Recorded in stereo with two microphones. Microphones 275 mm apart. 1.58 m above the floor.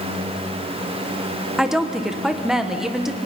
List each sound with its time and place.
1.6 s a woman speaking: centre (ahead or behind), 1.4 m